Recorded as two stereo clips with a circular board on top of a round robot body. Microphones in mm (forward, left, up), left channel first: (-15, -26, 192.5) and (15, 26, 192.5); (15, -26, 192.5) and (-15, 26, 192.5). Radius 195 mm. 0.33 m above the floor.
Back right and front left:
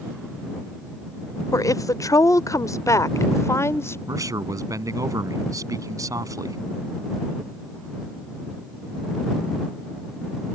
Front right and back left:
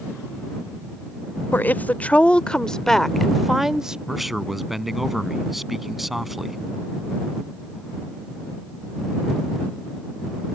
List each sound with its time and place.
1.5 s a woman speaking: 115° right; by 4.0 s 160° right
4.1 s a man speaking: 35° left